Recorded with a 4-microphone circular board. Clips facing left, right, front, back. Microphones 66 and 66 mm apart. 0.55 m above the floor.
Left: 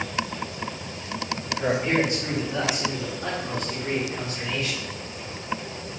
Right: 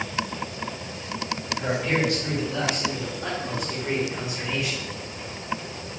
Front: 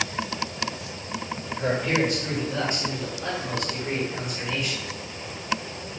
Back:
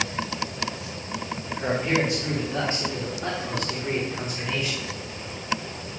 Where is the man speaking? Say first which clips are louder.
Left 2 dB, even; 125° left, 1.5 m; by 4.9 s 145° right, 1.8 m.